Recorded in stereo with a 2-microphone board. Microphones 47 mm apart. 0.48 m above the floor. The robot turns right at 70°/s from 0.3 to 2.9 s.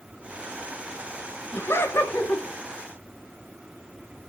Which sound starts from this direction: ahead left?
Laughter, at 1.5 s.